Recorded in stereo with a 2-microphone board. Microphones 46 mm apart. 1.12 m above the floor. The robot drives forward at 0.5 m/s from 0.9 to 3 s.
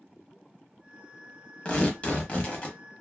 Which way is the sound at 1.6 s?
25° left (ahead or behind).